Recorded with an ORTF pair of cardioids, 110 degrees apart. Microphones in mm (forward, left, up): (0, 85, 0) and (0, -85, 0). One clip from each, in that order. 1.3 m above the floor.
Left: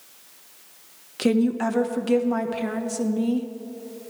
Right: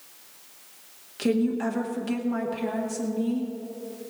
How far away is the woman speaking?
About 1.6 m.